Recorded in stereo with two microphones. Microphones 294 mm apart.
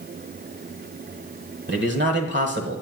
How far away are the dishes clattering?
No dishes clattering in this recording.